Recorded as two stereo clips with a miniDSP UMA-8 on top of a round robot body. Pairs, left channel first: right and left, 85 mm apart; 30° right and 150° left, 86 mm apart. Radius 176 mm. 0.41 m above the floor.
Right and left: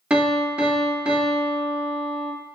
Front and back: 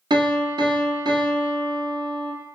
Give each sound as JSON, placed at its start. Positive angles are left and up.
{"t": 0.1, "sound": "a piano", "azimuth_deg": 165, "distance_m": 0.8}